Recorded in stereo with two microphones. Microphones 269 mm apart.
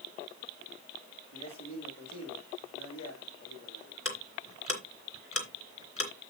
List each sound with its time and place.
1.3 s a man speaking: 85° left, 6 m
4.0 s ticking: 55° left (ahead or behind), 2.5 m